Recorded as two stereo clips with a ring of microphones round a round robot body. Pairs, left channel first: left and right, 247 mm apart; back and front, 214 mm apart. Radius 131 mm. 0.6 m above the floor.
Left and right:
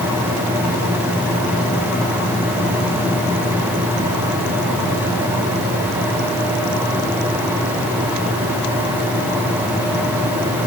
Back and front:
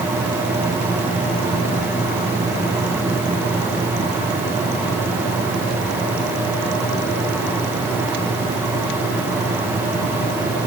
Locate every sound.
Only background noise.